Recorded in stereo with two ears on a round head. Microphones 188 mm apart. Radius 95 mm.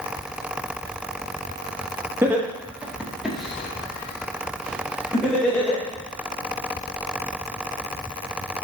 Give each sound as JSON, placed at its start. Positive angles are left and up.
{"t": 2.2, "sound": "laughter", "side_deg": -10, "distance_m": 1.4}